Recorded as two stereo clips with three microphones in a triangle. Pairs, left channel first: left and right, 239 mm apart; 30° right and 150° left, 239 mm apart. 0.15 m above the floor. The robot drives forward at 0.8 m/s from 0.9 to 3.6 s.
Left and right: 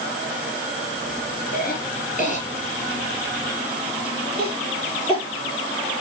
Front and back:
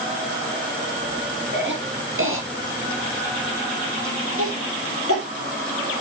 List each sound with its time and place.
1.5 s a cough: 130° left, 2 m; by 5.2 s 155° left, 3.5 m